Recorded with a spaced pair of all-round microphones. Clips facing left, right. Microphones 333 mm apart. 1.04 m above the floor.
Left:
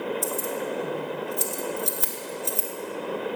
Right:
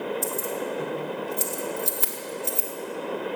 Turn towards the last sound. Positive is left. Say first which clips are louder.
# even
turn(degrees=-35)  # may be behind; listen again after turning